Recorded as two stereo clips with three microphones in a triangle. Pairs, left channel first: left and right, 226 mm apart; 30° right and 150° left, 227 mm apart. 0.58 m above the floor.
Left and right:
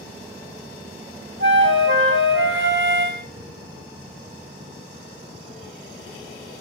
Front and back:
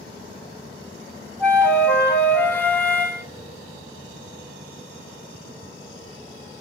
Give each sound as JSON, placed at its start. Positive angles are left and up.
{"t": 1.4, "sound": "a flute", "azimuth_deg": -115, "distance_m": 0.7}